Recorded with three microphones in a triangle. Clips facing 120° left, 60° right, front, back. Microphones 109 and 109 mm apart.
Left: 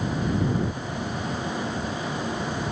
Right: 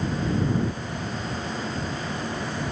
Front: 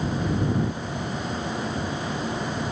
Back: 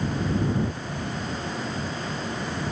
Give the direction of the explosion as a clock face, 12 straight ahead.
I don't hear an explosion.